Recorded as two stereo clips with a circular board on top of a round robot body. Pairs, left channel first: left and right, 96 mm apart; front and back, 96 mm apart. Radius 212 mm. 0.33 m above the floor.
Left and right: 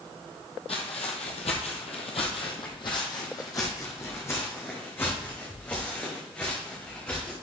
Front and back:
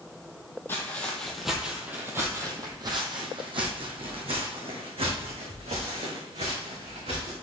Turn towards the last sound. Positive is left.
turn(degrees=170)